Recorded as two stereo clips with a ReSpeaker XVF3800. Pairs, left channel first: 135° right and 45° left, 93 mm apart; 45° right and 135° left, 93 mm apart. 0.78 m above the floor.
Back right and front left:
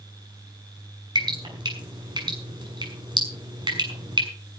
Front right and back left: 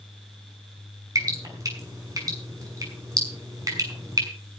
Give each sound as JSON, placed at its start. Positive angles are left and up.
{"t": 1.1, "sound": "dripping", "azimuth_deg": 80, "distance_m": 6.5}